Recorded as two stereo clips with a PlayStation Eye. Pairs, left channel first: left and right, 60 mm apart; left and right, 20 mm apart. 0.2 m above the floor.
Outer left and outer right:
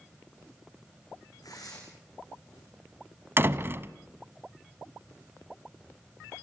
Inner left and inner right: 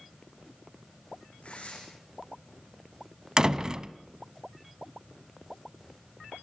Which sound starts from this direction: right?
A door slam, at 3.4 s.